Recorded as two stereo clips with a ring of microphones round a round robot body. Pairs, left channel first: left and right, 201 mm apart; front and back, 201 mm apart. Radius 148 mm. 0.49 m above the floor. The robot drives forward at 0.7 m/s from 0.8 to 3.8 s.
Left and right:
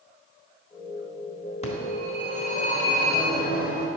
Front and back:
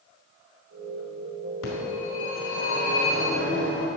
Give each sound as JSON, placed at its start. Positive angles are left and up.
{"t": 1.6, "sound": "a phone ringing", "azimuth_deg": 35, "distance_m": 4.0}